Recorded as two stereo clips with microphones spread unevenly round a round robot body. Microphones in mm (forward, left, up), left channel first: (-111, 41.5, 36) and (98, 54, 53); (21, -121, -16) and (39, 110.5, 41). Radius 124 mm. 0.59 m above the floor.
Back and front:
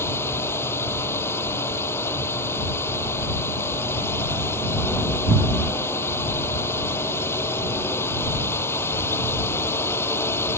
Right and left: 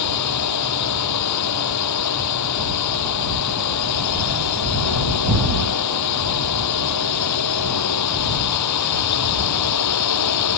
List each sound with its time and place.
0.0 s a drone: 95° right